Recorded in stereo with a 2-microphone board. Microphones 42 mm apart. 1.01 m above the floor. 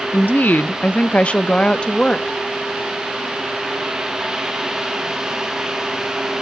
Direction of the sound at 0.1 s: 50° left (ahead or behind).